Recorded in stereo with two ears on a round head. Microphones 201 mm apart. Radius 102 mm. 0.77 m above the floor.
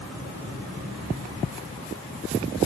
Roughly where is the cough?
I don't hear a cough.